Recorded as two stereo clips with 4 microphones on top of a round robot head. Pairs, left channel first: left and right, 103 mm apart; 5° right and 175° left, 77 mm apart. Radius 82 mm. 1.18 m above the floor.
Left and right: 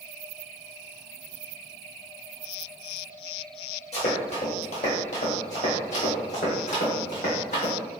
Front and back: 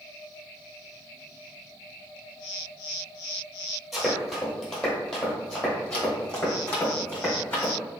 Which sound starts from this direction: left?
Running footsteps, at 3.9 s.